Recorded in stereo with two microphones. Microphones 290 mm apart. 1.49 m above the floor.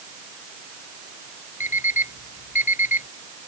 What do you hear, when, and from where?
1.6 s an alarm clock: 80° left